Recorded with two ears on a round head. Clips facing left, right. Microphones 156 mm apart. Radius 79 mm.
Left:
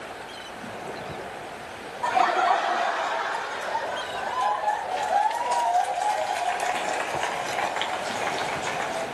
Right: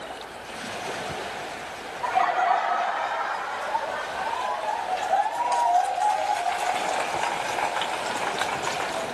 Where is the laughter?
45° left (ahead or behind), 0.8 m; by 9.0 s 20° left (ahead or behind), 4.5 m.